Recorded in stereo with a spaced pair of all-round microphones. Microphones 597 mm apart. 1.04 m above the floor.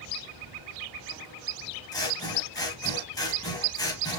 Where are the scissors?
5° left (ahead or behind), 1.0 m.